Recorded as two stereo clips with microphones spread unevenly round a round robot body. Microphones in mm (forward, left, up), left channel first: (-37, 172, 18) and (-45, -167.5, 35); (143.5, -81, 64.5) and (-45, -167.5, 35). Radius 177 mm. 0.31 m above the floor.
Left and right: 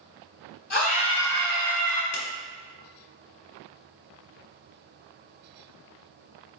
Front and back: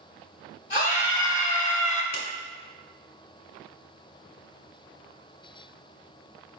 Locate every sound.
0.7 s a scream: 60° left, 1.0 m; by 2.0 s 20° right, 1.0 m
2.1 s a clap: 50° left, 1.0 m